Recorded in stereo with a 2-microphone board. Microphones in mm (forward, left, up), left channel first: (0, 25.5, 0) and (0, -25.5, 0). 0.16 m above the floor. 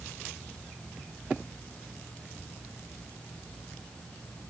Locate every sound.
Only background noise.